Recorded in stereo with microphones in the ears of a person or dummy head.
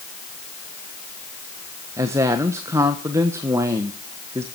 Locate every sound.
2.0 s a woman speaking: 15° right (ahead or behind), 1.1 m